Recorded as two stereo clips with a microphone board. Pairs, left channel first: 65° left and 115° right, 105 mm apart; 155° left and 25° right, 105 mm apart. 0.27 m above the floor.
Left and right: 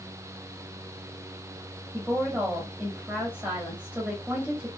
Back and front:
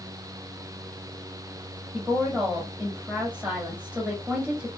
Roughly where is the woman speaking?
Right.